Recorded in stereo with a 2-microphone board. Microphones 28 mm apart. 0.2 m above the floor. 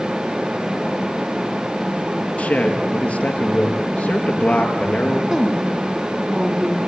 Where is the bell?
No bell in this recording.